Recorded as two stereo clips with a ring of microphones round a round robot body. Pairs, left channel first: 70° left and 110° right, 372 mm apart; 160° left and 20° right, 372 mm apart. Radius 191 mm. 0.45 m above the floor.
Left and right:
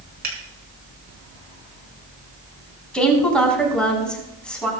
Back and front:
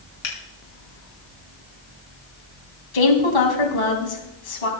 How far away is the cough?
I don't hear a cough.